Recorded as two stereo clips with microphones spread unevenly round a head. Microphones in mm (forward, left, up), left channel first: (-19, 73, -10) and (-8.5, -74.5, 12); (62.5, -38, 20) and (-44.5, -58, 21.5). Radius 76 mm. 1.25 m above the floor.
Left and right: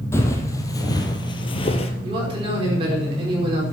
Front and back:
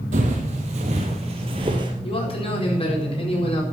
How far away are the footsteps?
About 2.5 m.